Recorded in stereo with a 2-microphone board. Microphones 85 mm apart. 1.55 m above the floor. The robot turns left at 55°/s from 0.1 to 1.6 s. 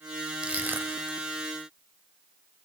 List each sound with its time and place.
0.4 s crushing: 10° right (ahead or behind), 1.9 m; by 1.2 s 40° right (ahead or behind), 1.9 m